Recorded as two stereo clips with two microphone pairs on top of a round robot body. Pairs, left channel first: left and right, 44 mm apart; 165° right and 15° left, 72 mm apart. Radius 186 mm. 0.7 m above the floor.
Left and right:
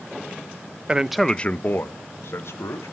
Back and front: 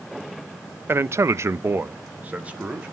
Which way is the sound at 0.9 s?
25° right.